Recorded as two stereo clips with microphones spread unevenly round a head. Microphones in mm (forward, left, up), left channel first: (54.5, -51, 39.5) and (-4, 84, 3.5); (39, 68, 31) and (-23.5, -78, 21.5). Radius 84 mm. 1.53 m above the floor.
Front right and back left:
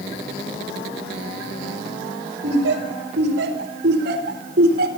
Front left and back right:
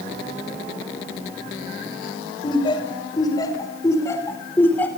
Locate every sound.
2.4 s laughter: 130° left, 5.5 m; by 4.9 s 145° left, 4.5 m